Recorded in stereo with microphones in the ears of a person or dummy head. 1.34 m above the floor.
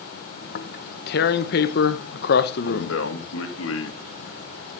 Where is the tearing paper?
55° left (ahead or behind), 0.8 m.